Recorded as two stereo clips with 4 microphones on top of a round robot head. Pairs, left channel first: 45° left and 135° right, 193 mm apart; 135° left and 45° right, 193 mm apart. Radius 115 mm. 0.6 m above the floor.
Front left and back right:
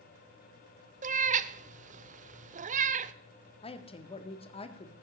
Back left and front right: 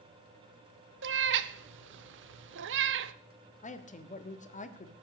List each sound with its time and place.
1.0 s a cat meowing: 80° right, 0.6 m
3.6 s a woman speaking: 95° left, 1.7 m